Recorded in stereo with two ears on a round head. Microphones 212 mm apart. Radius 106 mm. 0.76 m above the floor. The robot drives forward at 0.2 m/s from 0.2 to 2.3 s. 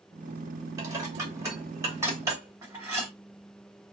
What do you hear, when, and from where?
0.8 s dishes clattering: 15° right (ahead or behind), 1.7 m; by 3.1 s 10° right (ahead or behind), 2.0 m